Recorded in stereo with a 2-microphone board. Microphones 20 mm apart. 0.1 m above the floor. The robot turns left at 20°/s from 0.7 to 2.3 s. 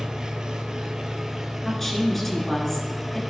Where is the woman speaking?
15° left (ahead or behind), 1.5 m.